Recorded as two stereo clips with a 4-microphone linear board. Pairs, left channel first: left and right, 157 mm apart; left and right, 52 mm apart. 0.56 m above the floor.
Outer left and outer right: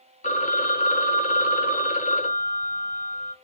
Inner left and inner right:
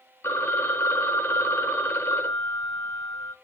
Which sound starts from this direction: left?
A phone ringing, at 0.2 s.